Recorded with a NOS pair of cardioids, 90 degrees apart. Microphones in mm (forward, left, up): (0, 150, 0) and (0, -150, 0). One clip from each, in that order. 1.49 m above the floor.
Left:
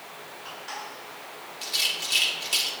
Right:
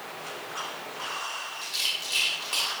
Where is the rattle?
40° left, 5 m.